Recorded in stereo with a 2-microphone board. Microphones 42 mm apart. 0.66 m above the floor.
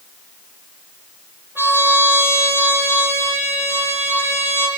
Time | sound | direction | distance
1.6 | a trumpet | 65° right (ahead or behind) | 7.5 m